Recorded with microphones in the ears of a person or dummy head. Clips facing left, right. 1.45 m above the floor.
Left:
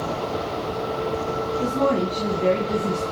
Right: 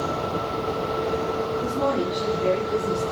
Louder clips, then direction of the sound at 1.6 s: Left 5 dB; 65° left (ahead or behind).